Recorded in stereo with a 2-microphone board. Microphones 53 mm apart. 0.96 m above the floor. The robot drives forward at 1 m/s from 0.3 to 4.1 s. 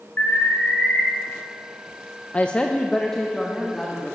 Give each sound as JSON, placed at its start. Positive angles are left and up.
{"t": 0.2, "sound": "an alarm", "side_deg": 35, "distance_m": 4.5}
{"t": 2.3, "sound": "a woman speaking", "side_deg": 25, "distance_m": 0.6}